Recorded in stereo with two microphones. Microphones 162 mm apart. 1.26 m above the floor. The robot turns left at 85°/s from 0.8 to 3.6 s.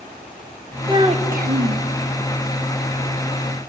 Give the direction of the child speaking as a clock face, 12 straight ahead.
1 o'clock.